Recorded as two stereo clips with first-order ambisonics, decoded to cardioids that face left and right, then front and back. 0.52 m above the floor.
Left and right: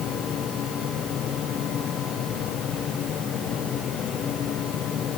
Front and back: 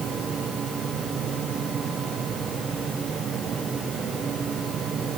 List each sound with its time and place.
Only background noise.